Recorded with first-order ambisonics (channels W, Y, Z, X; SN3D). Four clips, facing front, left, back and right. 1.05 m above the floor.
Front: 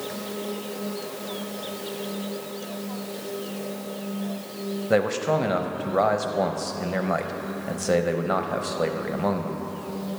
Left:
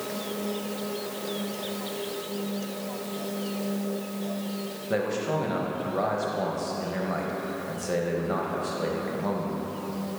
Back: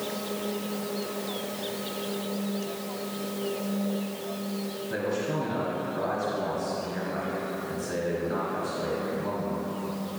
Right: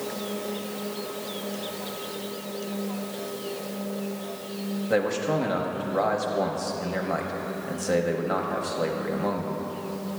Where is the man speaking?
10° right, 0.8 m.